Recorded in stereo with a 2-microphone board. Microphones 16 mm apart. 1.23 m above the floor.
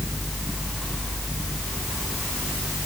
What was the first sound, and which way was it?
Only background noise.